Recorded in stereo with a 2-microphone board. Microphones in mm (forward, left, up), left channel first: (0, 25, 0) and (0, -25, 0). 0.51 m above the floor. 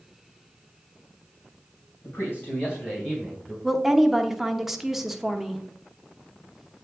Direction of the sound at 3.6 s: 5° right (ahead or behind).